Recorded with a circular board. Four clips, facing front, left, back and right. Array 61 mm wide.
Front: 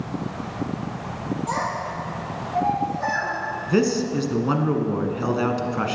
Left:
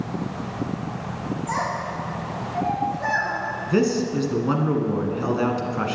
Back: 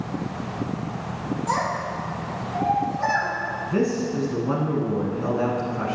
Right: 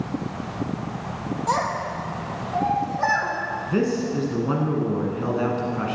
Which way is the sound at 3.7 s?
25° left.